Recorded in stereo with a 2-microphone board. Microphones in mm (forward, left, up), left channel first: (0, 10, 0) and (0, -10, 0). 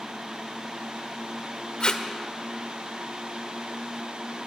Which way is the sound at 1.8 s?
55° left (ahead or behind).